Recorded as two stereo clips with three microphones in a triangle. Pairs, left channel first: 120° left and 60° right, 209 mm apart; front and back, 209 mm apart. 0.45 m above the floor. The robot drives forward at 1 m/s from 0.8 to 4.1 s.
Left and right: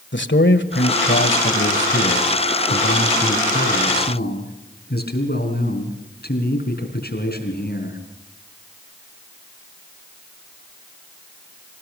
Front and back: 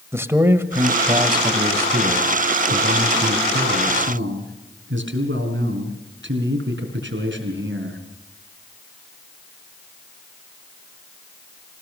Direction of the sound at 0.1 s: 105° left.